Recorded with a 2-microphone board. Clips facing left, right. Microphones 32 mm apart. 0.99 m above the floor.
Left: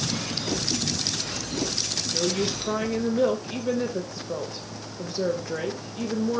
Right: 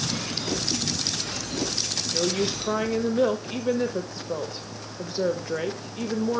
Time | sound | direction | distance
2.1 | a woman speaking | 10° right (ahead or behind) | 1.2 m